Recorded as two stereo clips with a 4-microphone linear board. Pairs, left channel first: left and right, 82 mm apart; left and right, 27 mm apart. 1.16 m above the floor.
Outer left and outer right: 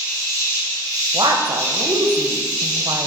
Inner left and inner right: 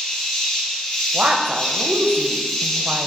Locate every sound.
0.0 s an insect: 30° left (ahead or behind), 2 m
1.1 s a woman speaking: 60° right (ahead or behind), 0.7 m